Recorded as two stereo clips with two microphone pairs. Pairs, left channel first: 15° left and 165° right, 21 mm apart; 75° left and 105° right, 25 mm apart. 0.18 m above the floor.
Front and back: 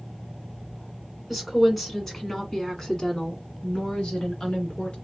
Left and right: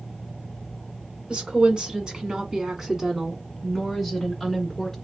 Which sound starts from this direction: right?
A woman speaking, at 1.3 s.